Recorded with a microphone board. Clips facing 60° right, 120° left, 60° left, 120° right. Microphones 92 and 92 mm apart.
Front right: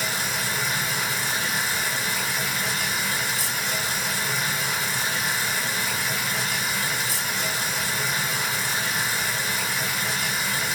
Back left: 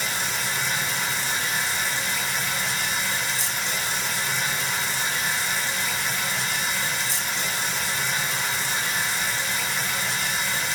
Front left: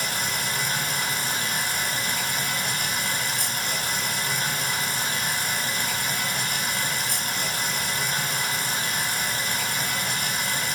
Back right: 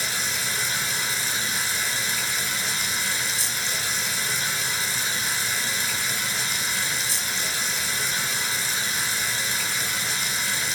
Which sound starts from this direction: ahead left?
Running water, at 0.0 s.